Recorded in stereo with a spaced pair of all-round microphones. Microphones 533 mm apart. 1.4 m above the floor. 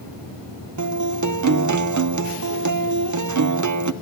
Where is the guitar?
35° right (ahead or behind), 0.5 m.